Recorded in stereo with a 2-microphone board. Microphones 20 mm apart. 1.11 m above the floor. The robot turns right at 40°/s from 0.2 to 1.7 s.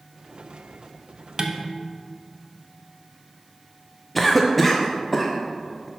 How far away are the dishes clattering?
About 0.6 m.